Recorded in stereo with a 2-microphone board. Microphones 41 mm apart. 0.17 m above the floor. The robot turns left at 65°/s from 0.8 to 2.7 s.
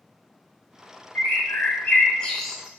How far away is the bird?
About 0.6 m.